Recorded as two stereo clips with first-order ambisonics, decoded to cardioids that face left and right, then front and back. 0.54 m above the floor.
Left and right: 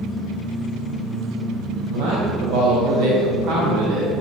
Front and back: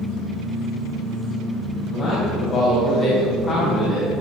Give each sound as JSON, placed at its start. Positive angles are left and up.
{"t": 1.9, "sound": "a man speaking", "azimuth_deg": -65, "distance_m": 4.0}